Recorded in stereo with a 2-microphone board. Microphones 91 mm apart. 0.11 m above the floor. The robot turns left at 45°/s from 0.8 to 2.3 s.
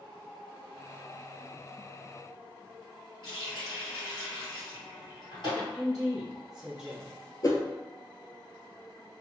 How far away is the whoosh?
About 0.5 m.